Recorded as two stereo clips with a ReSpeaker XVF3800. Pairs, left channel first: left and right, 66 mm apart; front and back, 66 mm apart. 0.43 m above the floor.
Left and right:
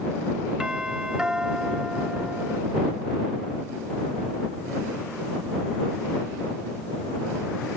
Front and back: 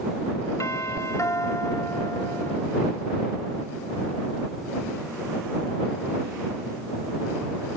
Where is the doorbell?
15° right.